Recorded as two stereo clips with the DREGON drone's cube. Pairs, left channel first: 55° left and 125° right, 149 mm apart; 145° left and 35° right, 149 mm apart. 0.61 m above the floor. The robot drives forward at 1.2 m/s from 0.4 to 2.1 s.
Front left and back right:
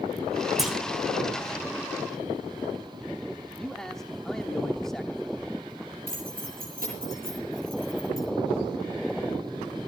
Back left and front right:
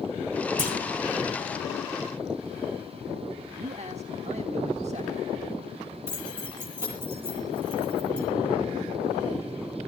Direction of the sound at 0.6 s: 35° right.